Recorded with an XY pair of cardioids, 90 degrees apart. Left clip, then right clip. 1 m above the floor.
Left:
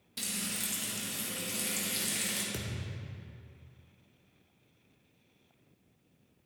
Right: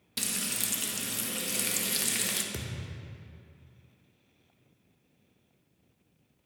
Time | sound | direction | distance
0.2 | frying | 60° right | 1.0 m
2.5 | a thud | 15° right | 1.1 m